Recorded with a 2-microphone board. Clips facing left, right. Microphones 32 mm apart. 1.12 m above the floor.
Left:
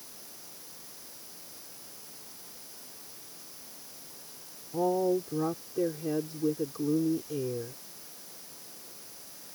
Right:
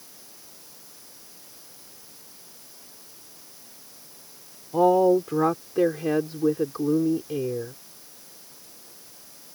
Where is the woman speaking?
80° right; by 7.7 s 30° right (ahead or behind).